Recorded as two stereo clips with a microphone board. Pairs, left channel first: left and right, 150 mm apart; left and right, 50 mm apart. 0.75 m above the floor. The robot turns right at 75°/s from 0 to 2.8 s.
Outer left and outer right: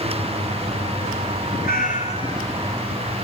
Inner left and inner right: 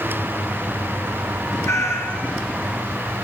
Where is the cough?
No cough in this recording.